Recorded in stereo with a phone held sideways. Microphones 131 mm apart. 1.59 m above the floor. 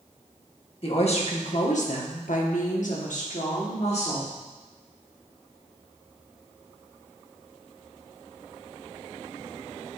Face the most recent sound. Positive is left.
turn(degrees=50)  # may be behind; listen again after turning